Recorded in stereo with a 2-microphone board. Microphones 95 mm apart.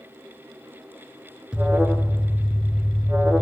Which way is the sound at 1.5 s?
10° right (ahead or behind).